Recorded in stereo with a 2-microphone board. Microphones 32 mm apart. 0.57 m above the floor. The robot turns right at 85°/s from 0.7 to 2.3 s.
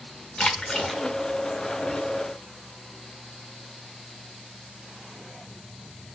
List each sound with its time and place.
0.4 s a splash: 25° left (ahead or behind), 0.9 m; by 1.0 s centre (ahead or behind), 0.9 m